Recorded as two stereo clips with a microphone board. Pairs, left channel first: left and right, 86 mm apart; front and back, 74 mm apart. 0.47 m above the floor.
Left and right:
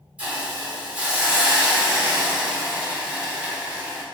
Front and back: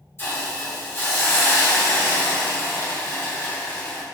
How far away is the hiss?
About 1.4 m.